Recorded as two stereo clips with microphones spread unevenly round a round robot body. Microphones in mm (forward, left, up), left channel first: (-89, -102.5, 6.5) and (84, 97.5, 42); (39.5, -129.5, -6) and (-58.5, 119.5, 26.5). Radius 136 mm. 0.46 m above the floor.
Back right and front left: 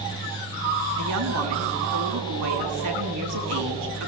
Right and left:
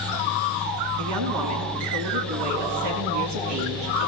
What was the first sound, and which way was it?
A woman speaking, 80° left.